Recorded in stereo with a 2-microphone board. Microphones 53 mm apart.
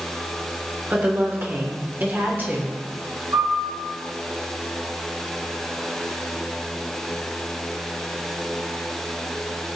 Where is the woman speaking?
40° right (ahead or behind), 2.5 m.